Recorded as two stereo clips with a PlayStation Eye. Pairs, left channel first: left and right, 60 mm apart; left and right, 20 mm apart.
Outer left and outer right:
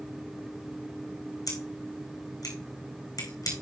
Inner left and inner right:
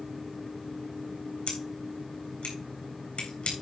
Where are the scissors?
70° left (ahead or behind), 3.5 m.